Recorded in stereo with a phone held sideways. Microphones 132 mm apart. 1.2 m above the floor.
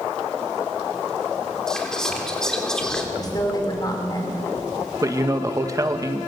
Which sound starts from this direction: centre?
Whispering, at 1.7 s.